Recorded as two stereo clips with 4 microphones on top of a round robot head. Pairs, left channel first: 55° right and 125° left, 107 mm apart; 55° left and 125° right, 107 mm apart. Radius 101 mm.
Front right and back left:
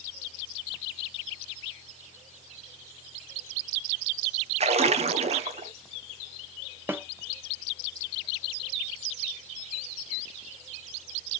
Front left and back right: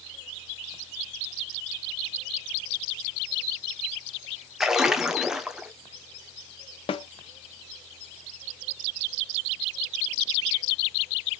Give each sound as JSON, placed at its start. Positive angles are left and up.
{"t": 4.6, "sound": "a splash", "azimuth_deg": 145, "distance_m": 0.7}
{"t": 6.9, "sound": "a snare drum", "azimuth_deg": 60, "distance_m": 0.8}